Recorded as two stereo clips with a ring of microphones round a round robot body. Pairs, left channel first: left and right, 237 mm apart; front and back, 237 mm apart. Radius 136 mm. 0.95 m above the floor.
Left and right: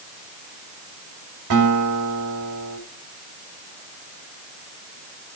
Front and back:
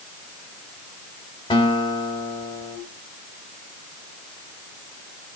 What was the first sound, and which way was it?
A guitar, 70° right.